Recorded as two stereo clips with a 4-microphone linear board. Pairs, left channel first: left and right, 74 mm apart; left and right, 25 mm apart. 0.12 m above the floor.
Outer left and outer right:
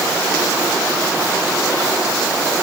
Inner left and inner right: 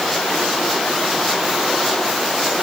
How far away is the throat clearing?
No throat clearing in this recording.